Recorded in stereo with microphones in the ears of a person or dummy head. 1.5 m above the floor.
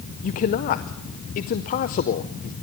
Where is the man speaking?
35° left (ahead or behind), 0.5 m.